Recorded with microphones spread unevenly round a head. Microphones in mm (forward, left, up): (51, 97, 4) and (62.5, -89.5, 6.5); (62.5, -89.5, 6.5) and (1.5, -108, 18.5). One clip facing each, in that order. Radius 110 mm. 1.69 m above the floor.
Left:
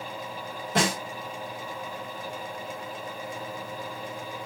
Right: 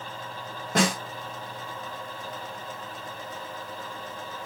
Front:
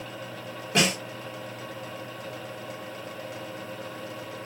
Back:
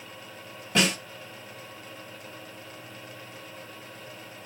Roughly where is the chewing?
I don't hear chewing.